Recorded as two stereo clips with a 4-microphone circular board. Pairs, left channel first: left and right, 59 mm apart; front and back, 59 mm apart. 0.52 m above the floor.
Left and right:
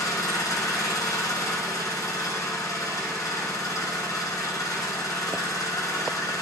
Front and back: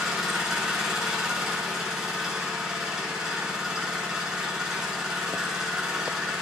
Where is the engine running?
105° left, 3.5 m.